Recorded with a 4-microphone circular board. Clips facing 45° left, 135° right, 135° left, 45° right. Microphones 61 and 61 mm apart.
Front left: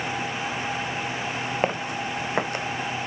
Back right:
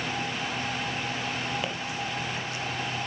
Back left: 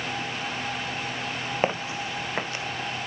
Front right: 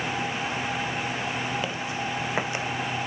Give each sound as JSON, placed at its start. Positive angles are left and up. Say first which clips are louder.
{"t": 1.6, "sound": "footsteps", "louder": "front left 6 dB, back left 2 dB", "azimuth_deg": 90, "distance_m": 0.7}